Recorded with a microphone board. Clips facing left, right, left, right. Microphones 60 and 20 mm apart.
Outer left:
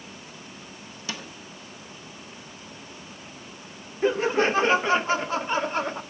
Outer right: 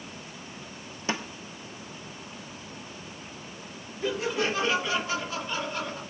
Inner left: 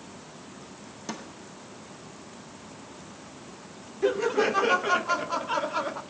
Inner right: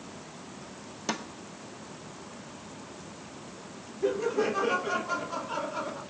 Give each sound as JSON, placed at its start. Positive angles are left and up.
{"t": 1.1, "sound": "a snare drum", "side_deg": -30, "distance_m": 1.3}
{"t": 4.0, "sound": "laughter", "side_deg": 35, "distance_m": 0.9}